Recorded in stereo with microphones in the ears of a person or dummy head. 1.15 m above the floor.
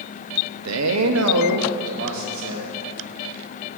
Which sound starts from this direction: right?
A man speaking, at 0.7 s.